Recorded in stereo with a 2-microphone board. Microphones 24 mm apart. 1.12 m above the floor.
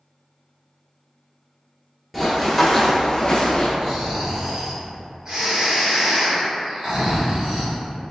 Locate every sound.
2.1 s running footsteps: 5° right (ahead or behind), 1.3 m; by 3.7 s 40° left (ahead or behind), 1.4 m
3.8 s snoring: 35° right (ahead or behind), 1.3 m